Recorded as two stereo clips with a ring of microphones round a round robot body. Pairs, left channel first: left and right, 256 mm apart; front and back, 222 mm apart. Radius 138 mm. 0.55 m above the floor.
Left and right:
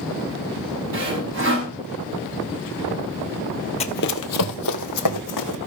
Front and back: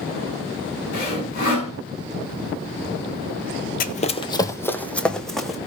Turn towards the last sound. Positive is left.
turn(degrees=90)